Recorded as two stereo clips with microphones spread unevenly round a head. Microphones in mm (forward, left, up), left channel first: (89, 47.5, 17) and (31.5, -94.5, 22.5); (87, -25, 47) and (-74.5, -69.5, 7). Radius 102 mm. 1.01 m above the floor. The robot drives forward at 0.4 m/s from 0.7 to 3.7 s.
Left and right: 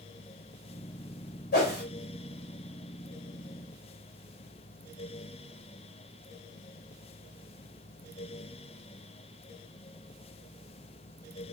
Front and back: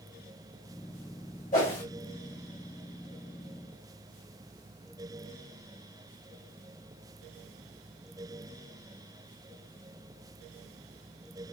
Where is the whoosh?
60° left, 1.4 m; by 1.8 s 70° left, 1.3 m.